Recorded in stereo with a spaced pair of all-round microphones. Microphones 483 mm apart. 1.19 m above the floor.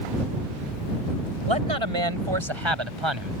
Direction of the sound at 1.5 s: 70° right (ahead or behind).